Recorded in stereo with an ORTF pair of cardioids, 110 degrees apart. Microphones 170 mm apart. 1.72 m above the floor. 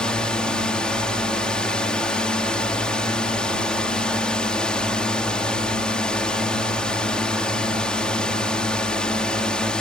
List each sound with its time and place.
0.0 s a drone: 5° left